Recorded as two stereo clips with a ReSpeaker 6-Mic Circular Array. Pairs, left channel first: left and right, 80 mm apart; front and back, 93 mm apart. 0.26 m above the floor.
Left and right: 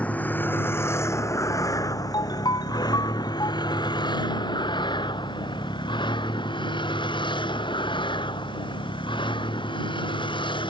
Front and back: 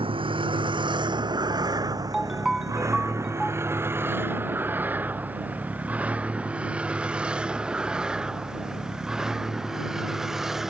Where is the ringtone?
95° left.